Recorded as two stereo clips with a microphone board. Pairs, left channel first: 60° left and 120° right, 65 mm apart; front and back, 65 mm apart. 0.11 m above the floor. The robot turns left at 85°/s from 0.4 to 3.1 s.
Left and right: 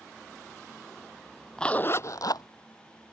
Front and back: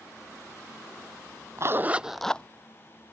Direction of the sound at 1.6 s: 140° left.